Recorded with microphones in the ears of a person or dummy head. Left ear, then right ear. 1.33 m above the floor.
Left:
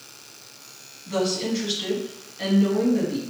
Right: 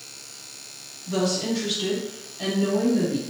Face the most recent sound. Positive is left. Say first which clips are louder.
# even
turn(degrees=55)  # may be behind; listen again after turning